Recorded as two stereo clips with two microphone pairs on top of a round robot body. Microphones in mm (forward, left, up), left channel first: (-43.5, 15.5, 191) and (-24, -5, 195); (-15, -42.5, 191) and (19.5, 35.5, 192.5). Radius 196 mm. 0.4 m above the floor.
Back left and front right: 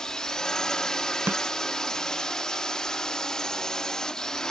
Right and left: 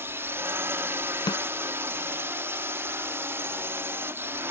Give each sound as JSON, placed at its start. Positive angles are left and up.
{"t": 0.0, "sound": "a drone", "azimuth_deg": 105}
{"t": 1.3, "sound": "a snare drum", "azimuth_deg": -75}